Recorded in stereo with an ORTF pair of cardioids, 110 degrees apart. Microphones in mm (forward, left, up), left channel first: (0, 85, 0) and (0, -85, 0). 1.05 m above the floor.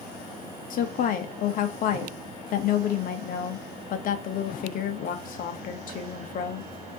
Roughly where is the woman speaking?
Ahead left.